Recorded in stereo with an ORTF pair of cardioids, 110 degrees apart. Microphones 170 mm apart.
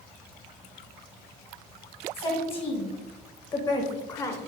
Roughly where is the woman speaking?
Ahead left.